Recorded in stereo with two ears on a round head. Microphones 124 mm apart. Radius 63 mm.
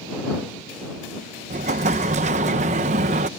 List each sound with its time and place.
1.5 s an explosion: 50° right (ahead or behind)